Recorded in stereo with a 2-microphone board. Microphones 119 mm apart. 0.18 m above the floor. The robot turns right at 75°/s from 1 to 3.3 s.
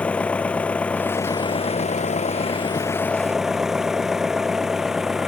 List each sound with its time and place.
0.0 s an engine running: 10° left; by 5.3 s 175° right